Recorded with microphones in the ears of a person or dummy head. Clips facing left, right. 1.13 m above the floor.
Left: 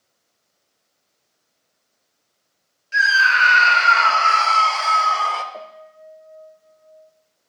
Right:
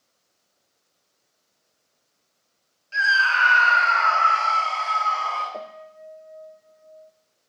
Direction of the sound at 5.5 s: 25° right (ahead or behind).